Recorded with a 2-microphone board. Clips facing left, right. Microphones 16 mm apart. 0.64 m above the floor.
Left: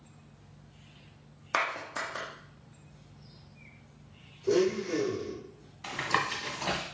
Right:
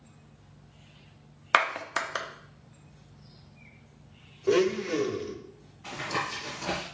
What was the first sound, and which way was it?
A clap, 50° right (ahead or behind).